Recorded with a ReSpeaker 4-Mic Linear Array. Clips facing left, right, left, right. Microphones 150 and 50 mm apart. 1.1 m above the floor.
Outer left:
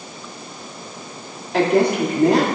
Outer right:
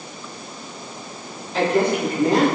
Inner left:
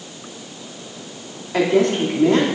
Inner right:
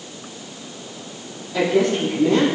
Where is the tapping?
No tapping in this recording.